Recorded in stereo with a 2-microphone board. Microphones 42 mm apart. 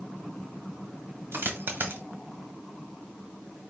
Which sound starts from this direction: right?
A dropped coin, at 1.3 s.